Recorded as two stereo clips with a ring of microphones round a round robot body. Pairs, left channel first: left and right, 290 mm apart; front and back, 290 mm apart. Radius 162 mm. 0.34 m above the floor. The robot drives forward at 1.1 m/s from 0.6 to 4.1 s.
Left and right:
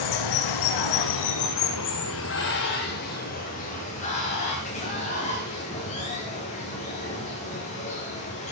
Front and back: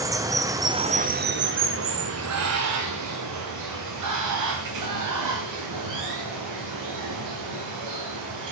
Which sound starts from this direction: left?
Running water, at 0.0 s.